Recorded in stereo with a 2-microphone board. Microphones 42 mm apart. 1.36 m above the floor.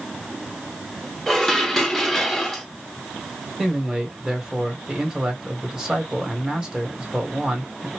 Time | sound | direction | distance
1.3 | dishes clattering | 10° left (ahead or behind) | 0.8 m
3.6 | a man speaking | 20° right (ahead or behind) | 1.4 m